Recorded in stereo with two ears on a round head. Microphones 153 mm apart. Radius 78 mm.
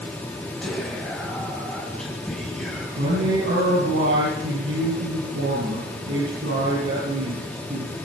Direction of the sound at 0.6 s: 5° left (ahead or behind).